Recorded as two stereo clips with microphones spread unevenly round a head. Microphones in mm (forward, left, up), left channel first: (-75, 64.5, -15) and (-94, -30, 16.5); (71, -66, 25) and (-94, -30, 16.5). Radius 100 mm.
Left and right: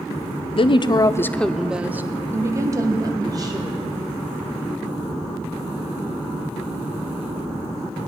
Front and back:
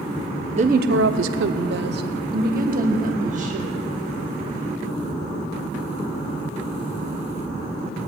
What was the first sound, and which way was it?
A woman speaking, 110° left.